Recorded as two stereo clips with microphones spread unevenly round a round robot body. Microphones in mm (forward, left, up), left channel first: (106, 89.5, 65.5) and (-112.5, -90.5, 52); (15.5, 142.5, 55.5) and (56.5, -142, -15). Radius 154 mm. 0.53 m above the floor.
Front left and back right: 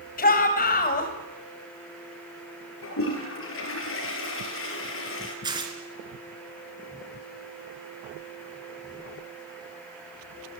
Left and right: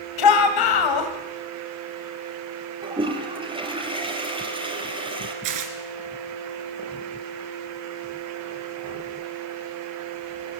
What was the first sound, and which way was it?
A shout, 100° left.